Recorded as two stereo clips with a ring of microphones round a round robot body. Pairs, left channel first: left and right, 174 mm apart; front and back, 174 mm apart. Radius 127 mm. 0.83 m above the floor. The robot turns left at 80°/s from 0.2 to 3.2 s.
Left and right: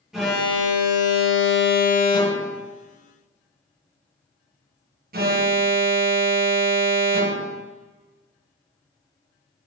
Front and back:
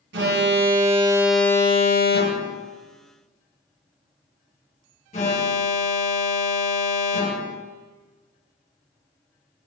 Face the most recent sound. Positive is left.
turn(degrees=-60)